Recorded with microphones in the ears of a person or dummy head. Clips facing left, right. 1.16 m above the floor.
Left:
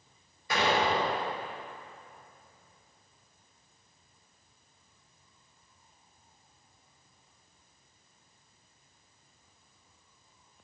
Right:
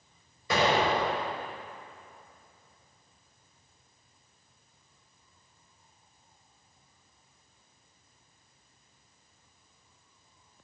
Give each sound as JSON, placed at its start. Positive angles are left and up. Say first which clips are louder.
{"t": 0.5, "sound": "an explosion", "louder": "right 2 dB", "side_deg": -60, "distance_m": 3.5}